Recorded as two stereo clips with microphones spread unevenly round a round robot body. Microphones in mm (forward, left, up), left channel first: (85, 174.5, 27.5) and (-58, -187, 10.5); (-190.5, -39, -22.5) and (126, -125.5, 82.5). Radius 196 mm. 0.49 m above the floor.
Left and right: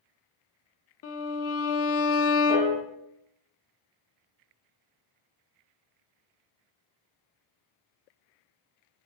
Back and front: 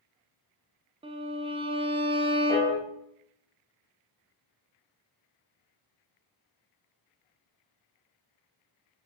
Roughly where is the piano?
Behind left.